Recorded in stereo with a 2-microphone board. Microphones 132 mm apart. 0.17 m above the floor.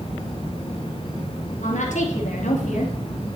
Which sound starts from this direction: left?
A woman speaking, at 1.6 s.